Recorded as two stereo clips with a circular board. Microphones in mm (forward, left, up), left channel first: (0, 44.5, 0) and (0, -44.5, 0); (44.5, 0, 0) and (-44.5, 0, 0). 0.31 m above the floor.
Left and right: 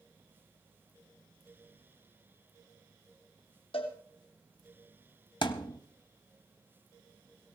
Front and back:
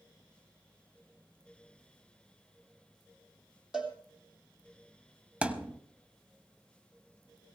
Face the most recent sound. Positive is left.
turn(degrees=105)